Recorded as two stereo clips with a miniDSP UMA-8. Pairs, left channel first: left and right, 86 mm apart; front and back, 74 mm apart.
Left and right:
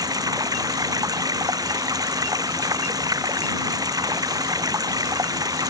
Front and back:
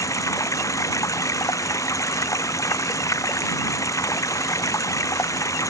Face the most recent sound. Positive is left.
turn(degrees=-45)